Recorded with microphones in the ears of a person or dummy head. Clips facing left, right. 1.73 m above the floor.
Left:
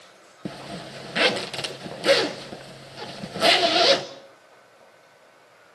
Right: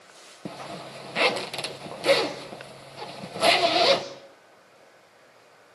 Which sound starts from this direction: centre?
A zipper, at 0.5 s.